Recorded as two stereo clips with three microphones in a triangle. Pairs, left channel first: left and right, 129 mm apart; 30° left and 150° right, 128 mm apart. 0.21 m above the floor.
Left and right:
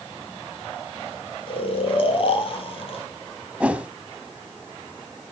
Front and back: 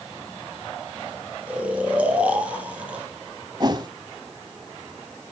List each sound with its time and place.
1.5 s snoring: 130° left, 4 m
3.6 s a whoosh: 165° right, 0.9 m